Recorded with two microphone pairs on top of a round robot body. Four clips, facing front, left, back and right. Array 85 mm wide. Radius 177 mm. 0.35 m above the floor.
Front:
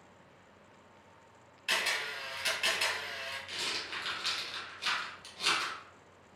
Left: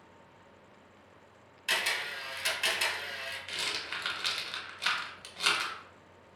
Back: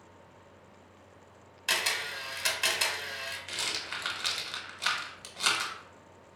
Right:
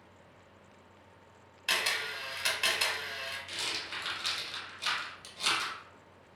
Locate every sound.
1.7 s a camera shutter: 150° right, 1.1 m
3.5 s a rattle: 165° left, 0.8 m